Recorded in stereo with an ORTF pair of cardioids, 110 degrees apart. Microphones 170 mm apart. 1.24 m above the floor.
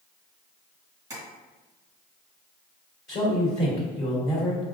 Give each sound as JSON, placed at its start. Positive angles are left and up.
{"t": 1.1, "sound": "tapping", "azimuth_deg": -20, "distance_m": 1.5}
{"t": 3.1, "sound": "a man speaking", "azimuth_deg": 30, "distance_m": 1.6}